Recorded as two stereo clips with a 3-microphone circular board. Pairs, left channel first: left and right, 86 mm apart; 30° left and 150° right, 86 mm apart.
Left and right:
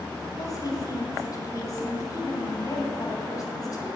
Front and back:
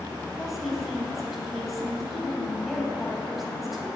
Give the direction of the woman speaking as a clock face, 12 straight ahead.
8 o'clock.